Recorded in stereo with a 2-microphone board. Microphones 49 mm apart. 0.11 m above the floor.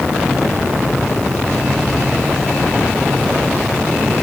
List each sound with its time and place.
Only background noise.